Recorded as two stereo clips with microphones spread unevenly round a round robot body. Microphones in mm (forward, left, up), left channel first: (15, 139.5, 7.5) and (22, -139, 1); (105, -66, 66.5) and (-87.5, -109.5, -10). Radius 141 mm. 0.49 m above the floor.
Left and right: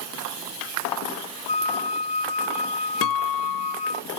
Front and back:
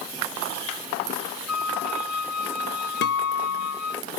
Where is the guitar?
65° left.